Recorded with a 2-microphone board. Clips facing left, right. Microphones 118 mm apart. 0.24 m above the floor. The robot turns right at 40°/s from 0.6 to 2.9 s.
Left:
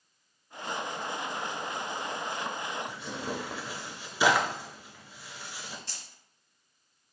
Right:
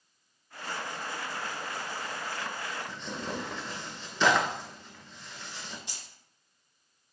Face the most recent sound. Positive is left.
turn(degrees=-15)  # may be behind; listen again after turning